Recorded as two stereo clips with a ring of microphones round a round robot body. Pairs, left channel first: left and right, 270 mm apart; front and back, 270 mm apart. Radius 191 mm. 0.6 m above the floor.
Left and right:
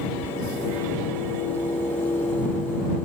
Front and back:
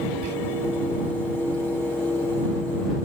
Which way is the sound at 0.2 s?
175° right.